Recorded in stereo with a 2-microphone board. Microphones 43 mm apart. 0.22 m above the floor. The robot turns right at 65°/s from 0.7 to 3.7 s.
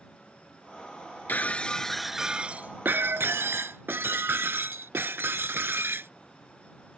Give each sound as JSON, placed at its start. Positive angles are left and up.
{"t": 1.3, "sound": "breaking glass", "azimuth_deg": 135}